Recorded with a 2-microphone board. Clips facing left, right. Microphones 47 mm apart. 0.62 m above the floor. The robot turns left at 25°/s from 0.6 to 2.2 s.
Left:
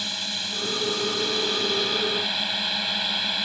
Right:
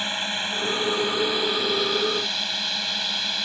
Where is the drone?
145° right; by 3.5 s 175° left.